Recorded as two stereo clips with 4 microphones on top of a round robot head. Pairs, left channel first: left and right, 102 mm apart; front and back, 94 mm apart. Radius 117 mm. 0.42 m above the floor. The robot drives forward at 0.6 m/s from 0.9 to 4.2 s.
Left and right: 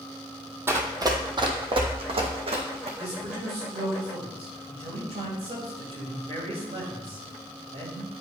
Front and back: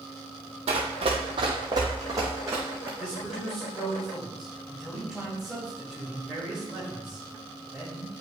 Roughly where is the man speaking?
Right.